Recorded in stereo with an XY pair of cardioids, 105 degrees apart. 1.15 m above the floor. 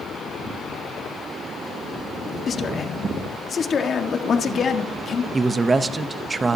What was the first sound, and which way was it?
A man speaking, 45° left.